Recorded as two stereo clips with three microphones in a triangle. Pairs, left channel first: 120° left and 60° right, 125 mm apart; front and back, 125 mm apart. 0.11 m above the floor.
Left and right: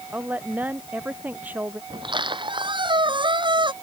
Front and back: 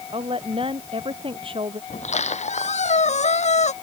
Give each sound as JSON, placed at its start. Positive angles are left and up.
{"t": 0.1, "sound": "a woman speaking", "azimuth_deg": -135}
{"t": 1.9, "sound": "a squeak", "azimuth_deg": -15}